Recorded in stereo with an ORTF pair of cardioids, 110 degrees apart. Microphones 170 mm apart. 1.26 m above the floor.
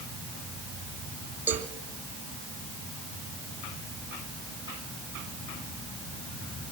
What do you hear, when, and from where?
1.5 s a cowbell: 10° right, 2.5 m